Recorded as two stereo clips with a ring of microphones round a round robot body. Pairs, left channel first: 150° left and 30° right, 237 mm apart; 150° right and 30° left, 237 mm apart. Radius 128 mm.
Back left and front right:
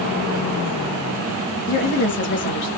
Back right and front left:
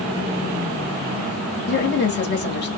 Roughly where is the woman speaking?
Behind.